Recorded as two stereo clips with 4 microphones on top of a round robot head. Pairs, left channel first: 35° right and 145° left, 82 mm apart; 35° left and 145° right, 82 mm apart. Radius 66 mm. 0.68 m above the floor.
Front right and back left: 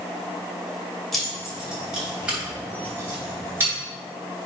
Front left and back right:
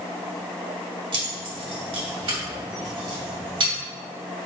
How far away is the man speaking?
No man speaking in this recording.